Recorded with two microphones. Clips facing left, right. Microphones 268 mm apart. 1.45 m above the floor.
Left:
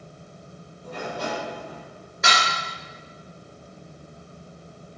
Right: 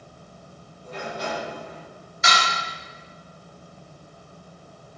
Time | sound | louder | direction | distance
0.8 | a sliding door | left 1 dB | 55° left (ahead or behind) | 4 m
2.2 | dishes clattering | even | 65° left (ahead or behind) | 3.5 m